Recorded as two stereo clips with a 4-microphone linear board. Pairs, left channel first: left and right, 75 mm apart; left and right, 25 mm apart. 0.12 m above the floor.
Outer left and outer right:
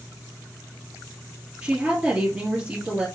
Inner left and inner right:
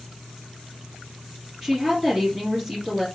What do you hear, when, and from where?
1.6 s a woman speaking: 20° right (ahead or behind), 2 m